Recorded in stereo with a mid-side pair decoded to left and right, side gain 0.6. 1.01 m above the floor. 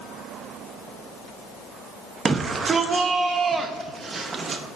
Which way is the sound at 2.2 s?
30° right.